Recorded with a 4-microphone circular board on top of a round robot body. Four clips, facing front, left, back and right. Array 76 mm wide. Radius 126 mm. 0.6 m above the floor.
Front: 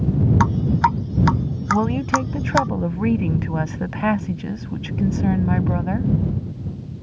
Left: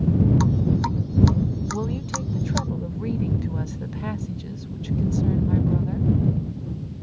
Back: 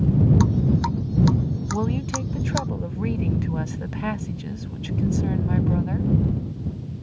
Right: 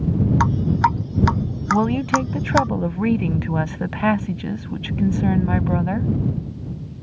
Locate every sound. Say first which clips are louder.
0.4 s dripping: right 4 dB, front 4 dB; 45° right
1.7 s a woman speaking: right 10 dB, front 9 dB; 55° right